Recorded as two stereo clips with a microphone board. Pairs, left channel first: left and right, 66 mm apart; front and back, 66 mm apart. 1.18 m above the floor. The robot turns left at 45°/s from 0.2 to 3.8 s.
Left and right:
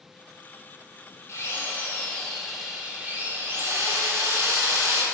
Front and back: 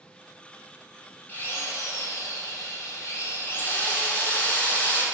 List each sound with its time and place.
1.3 s a drill: 55° left, 1.3 m; by 5.0 s 60° right, 1.3 m